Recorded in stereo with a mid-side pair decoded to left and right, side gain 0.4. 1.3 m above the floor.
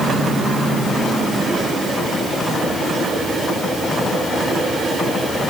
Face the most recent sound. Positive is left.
No sound to turn to.